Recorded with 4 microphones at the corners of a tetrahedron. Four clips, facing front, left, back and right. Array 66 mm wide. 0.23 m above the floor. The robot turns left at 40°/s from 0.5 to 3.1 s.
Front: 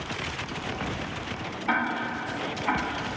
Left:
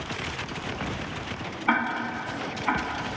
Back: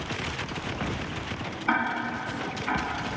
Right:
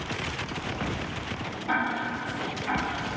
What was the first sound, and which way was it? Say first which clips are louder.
Ticking: left 2 dB, even; 105° left.